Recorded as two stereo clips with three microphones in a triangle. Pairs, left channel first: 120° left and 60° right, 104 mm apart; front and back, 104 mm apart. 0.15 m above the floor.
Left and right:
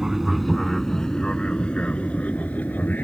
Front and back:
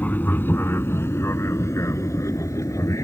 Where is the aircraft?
20° left; by 3.0 s 50° left.